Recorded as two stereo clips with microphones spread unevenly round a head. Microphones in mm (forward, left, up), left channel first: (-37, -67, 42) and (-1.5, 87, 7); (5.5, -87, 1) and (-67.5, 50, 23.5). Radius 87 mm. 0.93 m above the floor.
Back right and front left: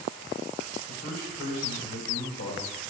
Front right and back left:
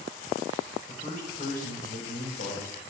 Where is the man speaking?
95° right, 4.5 m.